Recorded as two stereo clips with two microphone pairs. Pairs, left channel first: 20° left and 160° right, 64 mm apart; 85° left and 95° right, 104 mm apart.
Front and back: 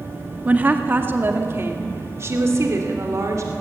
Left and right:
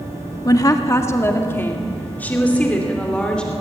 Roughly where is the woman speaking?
Behind left.